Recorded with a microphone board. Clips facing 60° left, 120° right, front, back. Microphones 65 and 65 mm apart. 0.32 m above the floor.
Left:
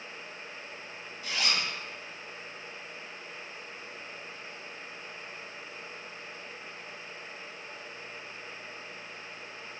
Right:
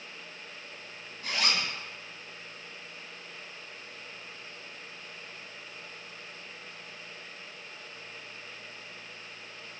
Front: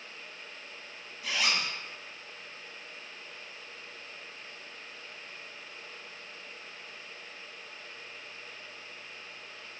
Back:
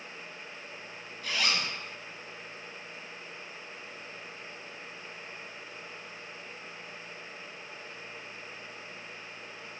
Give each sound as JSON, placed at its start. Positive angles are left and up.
{"t": 1.2, "sound": "a zipper", "azimuth_deg": -85, "distance_m": 0.5}